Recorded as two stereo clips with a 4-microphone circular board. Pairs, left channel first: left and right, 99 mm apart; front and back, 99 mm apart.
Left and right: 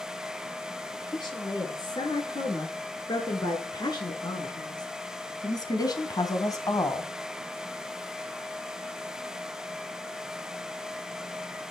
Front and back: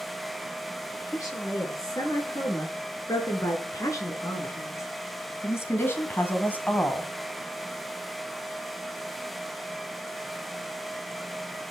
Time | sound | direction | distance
0.9 | a woman speaking | 50° left | 6.5 m